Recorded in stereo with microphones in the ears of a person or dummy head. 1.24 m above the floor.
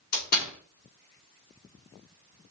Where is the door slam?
55° left (ahead or behind), 2 m.